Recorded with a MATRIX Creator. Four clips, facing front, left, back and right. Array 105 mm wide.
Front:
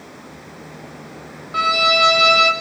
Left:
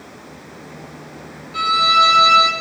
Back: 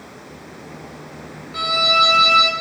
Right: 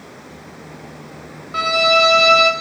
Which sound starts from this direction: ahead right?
A violin, at 1.5 s.